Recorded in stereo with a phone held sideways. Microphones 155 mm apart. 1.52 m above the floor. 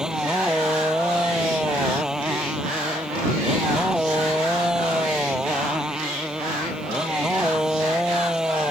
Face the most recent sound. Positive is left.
turn(degrees=-5)  # may be behind; listen again after turning